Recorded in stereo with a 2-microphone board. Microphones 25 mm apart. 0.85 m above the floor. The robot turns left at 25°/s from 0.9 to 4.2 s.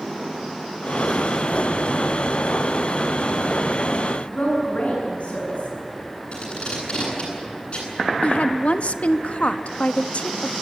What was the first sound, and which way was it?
A woman speaking, 60° left (ahead or behind).